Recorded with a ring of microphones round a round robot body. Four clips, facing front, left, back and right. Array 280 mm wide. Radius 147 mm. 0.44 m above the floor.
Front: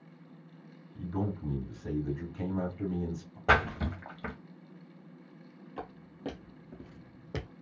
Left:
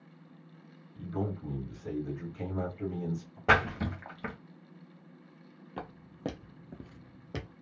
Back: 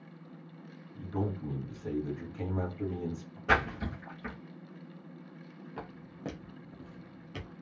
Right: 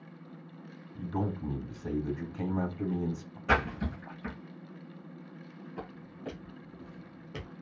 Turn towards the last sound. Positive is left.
turn(degrees=20)